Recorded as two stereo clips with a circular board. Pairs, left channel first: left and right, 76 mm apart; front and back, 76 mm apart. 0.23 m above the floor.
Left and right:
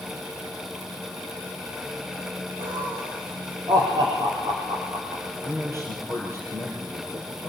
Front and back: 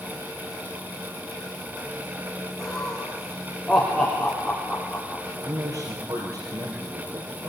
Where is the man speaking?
140° right, 5 m.